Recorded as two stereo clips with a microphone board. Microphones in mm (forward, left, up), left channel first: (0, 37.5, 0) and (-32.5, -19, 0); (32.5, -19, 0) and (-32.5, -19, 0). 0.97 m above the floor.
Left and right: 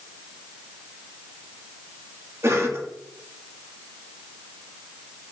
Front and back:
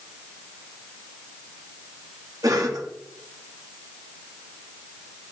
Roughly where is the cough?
Behind.